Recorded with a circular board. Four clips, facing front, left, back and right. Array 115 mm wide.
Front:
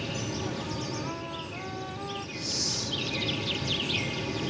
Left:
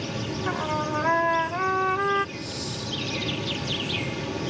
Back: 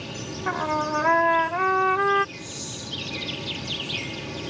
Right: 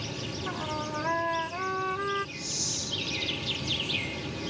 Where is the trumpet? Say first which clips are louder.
Left 7 dB, back 9 dB; 155° left.